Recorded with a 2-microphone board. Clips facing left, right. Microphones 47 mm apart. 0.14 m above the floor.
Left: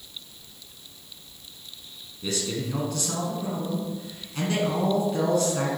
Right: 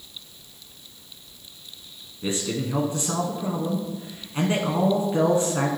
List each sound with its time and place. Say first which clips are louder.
2.2 s a man speaking: right 2 dB; 25° right (ahead or behind), 1.1 m